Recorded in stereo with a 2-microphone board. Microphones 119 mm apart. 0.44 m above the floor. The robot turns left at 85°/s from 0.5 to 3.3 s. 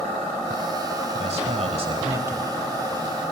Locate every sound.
1.2 s a man speaking: 65° right, 1.9 m; by 2.5 s 175° right, 1.9 m